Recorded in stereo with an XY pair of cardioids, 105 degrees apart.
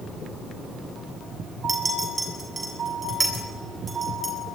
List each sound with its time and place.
1.7 s a clink: 20° right, 7.5 m